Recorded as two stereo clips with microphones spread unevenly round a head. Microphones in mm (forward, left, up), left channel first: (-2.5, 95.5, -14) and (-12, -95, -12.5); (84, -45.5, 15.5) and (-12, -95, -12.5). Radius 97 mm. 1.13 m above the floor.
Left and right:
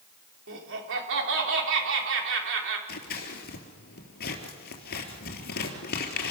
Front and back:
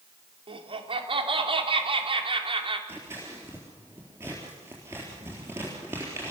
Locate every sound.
0.5 s laughter: 120° right, 3.5 m
2.9 s scissors: 125° left, 3.5 m